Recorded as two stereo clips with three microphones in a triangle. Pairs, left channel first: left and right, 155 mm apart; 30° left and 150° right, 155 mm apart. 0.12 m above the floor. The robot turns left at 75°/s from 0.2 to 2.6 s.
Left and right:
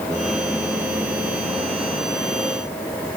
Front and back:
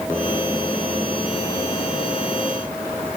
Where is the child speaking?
No child speaking in this recording.